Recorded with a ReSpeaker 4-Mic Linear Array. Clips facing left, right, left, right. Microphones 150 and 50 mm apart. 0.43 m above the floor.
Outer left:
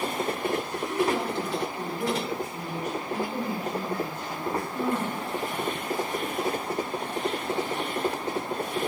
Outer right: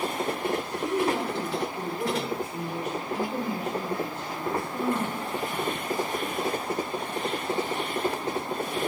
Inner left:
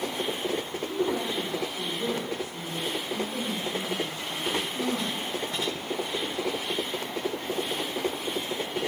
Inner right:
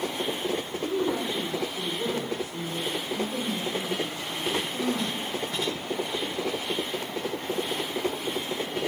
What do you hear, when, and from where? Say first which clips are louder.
0.8 s a woman speaking: outer right 1 dB, inner right 1 dB; 30° right (ahead or behind), 1.4 m